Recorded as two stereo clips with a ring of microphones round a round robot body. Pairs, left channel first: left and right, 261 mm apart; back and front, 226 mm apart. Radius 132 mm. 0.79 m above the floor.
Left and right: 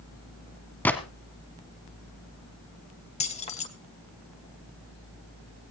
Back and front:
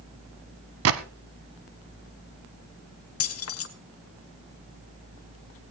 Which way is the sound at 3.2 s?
155° left.